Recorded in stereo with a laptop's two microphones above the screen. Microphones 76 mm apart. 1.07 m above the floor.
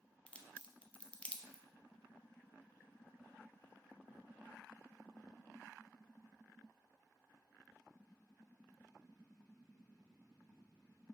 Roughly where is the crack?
Centre.